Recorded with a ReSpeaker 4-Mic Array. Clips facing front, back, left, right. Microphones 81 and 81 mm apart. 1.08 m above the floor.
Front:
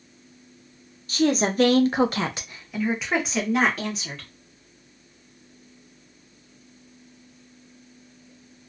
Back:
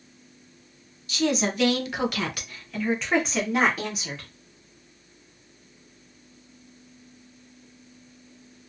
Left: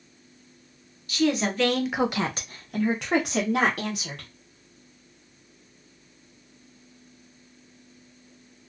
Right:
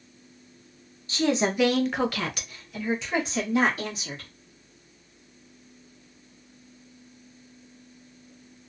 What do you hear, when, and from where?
1.1 s a woman speaking: 40° right, 0.7 m; by 4.3 s 100° left, 1.2 m